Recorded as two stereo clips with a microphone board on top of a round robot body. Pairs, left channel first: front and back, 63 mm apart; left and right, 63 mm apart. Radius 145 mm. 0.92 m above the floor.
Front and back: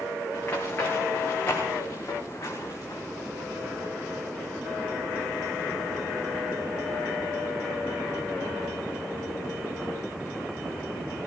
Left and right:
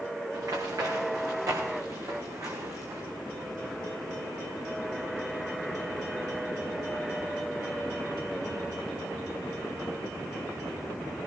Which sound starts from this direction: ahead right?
Running footsteps, at 0.3 s.